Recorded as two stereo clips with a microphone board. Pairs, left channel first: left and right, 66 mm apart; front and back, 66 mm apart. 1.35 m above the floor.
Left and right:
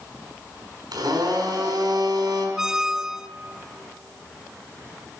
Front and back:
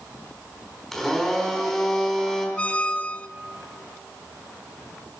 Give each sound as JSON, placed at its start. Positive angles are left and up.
{"t": 0.9, "sound": "a blender", "azimuth_deg": -85, "distance_m": 4.5}
{"t": 2.6, "sound": "a squeak", "azimuth_deg": -25, "distance_m": 0.6}